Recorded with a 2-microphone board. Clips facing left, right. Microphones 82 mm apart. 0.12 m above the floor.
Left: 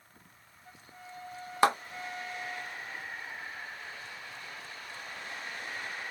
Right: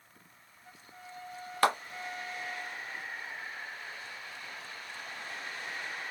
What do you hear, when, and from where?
1.6 s a clap: 15° left (ahead or behind), 0.9 m